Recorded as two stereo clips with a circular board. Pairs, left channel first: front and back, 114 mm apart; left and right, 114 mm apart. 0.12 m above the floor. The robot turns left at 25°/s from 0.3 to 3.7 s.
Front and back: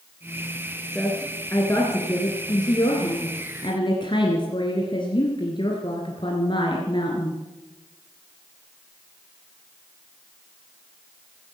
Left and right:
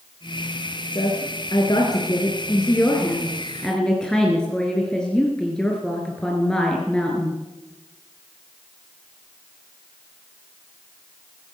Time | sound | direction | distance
0.9 | a woman speaking | 80° left | 2 m